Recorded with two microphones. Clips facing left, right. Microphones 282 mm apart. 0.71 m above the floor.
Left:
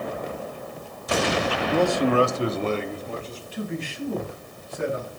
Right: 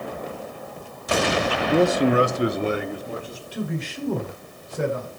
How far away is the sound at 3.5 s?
About 2.5 m.